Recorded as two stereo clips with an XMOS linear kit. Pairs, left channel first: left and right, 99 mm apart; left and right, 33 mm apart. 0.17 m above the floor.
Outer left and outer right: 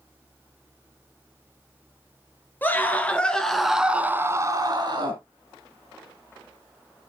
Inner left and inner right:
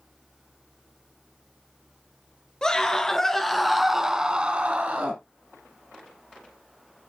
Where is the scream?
20° left (ahead or behind), 2.5 m; by 5.2 s 55° right (ahead or behind), 1.8 m.